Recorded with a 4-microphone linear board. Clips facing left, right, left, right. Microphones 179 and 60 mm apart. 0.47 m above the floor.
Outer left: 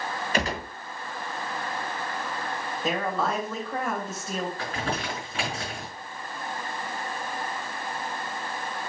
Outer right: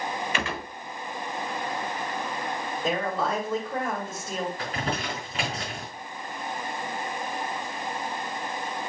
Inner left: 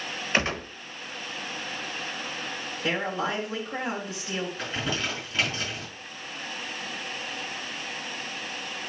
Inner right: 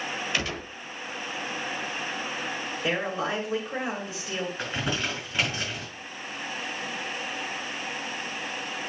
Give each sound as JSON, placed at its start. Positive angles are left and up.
{"t": 0.3, "sound": "a gunshot", "side_deg": 40, "distance_m": 0.9}
{"t": 2.8, "sound": "a woman speaking", "side_deg": -5, "distance_m": 2.5}
{"t": 4.6, "sound": "crumpling", "side_deg": -20, "distance_m": 4.5}